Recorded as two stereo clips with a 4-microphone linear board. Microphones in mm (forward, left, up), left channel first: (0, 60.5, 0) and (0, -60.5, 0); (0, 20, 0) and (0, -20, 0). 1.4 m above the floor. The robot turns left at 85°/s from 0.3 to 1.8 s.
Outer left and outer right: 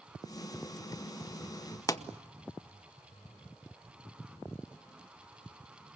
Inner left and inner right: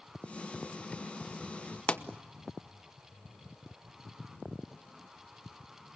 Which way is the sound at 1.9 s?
30° left (ahead or behind).